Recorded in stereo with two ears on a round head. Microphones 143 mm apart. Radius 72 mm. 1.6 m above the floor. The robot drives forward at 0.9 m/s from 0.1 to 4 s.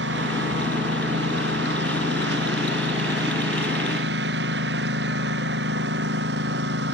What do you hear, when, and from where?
0.0 s a lawn mower: 80° right; by 6.9 s 75° right (ahead or behind)